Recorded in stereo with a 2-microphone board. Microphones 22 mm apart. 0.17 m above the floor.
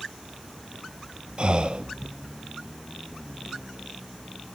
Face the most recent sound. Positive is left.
turn(degrees=-50)  # may be behind; listen again after turning